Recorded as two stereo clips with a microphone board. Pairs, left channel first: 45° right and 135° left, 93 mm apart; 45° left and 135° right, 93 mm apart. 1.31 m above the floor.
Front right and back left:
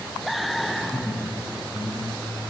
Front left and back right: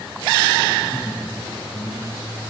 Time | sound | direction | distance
0.8 | laughter | 10° left | 7 m